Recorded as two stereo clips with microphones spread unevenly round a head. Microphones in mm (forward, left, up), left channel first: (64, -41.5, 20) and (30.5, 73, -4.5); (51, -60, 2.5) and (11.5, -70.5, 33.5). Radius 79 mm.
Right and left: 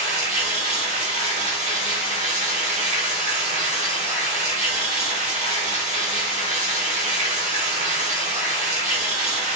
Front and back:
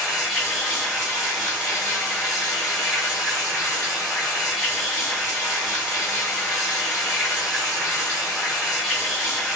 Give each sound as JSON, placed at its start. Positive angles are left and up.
{"t": 0.0, "sound": "running water", "azimuth_deg": 150, "distance_m": 0.8}